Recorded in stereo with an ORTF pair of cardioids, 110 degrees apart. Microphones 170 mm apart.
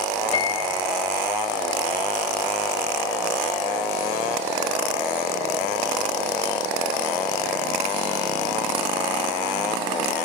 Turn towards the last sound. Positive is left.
turn(degrees=35)